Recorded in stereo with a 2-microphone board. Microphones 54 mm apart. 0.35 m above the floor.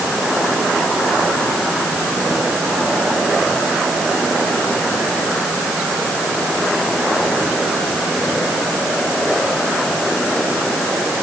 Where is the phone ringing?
No phone ringing in this recording.